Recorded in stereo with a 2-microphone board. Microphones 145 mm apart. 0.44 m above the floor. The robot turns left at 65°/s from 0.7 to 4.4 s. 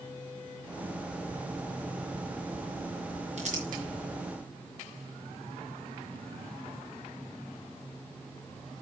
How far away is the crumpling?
About 4.5 m.